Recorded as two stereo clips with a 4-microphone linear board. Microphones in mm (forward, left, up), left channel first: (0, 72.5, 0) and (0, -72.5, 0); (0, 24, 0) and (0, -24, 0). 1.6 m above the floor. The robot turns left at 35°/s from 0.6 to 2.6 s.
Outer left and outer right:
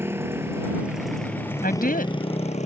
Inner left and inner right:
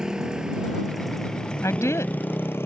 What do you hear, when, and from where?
0.0 s a motorcycle: 15° right (ahead or behind); by 2.7 s 50° left (ahead or behind)
1.6 s a woman speaking: 85° left; by 2.3 s 70° left (ahead or behind)